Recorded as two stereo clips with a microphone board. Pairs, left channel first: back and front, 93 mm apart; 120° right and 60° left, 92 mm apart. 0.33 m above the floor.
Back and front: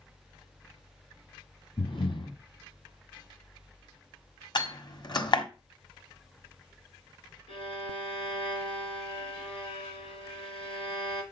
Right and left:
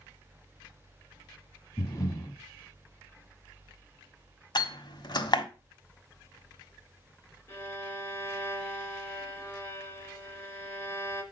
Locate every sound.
1.8 s breathing: 170° right, 1.6 m
4.5 s a door slam: 150° right, 1.5 m
7.5 s a violin: straight behind, 2.5 m